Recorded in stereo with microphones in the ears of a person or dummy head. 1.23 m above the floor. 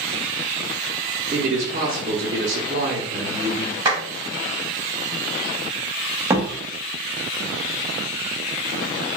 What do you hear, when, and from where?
1.3 s a man speaking: 45° right (ahead or behind), 0.7 m
3.9 s a clap: 25° right (ahead or behind), 1.7 m
6.3 s a door slam: 20° right (ahead or behind), 0.6 m